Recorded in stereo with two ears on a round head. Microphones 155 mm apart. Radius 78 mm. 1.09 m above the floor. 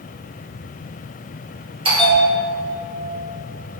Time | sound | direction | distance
1.9 | a bell | 30° right (ahead or behind) | 2 m